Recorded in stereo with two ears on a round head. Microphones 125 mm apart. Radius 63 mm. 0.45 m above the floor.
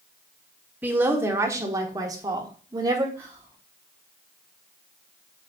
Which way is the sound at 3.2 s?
15° right (ahead or behind).